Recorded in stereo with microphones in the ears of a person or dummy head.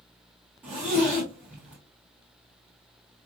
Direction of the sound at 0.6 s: 10° right (ahead or behind).